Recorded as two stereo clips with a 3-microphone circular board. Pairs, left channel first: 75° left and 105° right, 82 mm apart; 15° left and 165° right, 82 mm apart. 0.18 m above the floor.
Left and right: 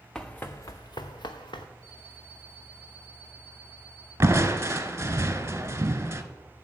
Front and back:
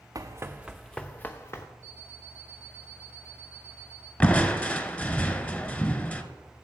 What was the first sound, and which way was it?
Running footsteps, 155° left.